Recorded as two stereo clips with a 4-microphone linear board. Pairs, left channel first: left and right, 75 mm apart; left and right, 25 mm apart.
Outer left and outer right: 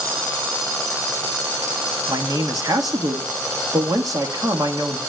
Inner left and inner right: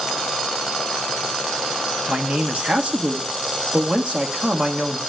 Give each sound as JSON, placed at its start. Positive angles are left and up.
{"t": 2.1, "sound": "a man speaking", "side_deg": -55, "distance_m": 1.4}